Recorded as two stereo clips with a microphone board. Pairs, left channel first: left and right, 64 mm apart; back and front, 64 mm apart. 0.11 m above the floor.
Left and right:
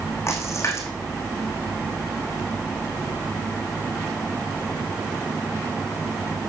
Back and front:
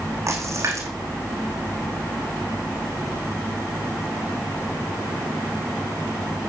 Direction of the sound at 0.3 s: 45° left.